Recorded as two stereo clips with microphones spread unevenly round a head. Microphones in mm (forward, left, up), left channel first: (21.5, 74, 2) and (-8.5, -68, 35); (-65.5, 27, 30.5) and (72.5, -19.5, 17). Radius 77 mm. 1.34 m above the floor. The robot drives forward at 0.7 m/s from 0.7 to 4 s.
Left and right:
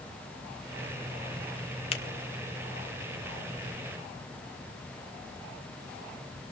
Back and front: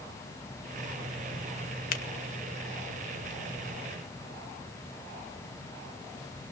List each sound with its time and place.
1.9 s a finger snap: 135° left, 1.2 m